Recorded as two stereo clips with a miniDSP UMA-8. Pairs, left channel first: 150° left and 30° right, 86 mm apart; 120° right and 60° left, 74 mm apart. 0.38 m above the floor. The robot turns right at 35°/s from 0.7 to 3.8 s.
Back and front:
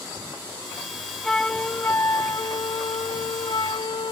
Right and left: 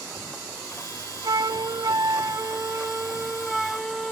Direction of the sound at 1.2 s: 65° left.